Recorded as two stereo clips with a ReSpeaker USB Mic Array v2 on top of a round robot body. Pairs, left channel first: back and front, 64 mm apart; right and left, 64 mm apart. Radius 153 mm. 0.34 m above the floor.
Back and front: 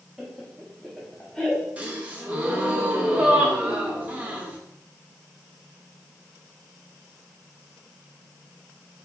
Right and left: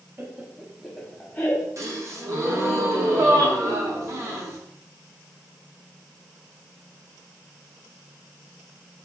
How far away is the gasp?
About 0.9 m.